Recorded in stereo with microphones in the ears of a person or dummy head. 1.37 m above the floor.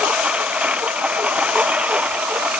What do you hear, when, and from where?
0.0 s a lawn mower: 10° right (ahead or behind)